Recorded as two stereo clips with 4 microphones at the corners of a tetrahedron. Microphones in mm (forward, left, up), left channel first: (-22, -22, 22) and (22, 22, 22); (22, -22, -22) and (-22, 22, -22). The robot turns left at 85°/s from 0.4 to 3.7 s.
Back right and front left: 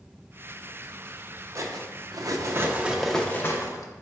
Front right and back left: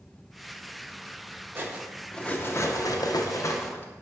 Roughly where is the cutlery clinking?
Left.